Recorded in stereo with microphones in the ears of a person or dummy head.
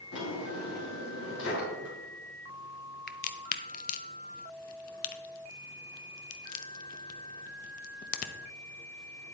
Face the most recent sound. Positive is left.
turn(degrees=45)  # may be behind; listen again after turning